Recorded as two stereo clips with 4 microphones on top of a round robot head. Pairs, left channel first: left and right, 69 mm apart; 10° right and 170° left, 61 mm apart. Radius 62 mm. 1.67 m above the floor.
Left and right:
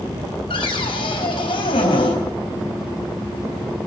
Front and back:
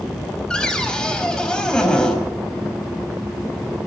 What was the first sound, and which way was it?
A cupboard door, 70° left.